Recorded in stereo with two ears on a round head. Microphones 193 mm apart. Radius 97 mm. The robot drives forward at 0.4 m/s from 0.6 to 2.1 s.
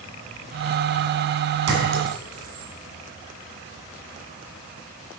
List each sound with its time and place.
1.7 s a clink: 90° right, 2.5 m; by 2.7 s 85° right, 2.5 m